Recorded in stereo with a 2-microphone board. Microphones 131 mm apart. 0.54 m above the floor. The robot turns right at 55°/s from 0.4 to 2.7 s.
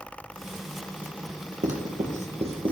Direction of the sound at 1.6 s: 80° right.